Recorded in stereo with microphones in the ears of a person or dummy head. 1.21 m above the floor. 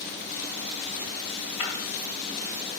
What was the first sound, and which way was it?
Breaking glass, 35° left (ahead or behind).